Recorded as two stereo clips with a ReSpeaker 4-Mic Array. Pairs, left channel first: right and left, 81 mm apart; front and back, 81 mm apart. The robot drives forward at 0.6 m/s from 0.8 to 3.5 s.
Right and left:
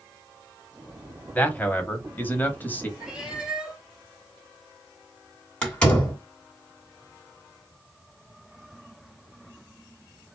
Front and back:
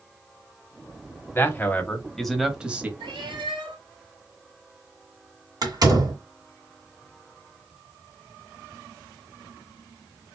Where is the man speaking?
35° right, 1.2 m; by 2.9 s 130° right, 1.1 m.